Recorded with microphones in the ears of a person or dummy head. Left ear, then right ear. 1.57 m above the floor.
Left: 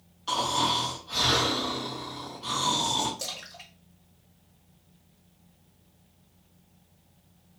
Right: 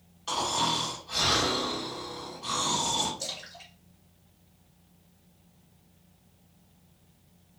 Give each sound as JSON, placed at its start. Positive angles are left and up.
{"t": 0.3, "sound": "snoring", "side_deg": -5, "distance_m": 1.3}
{"t": 3.2, "sound": "a splash", "side_deg": 55, "distance_m": 1.1}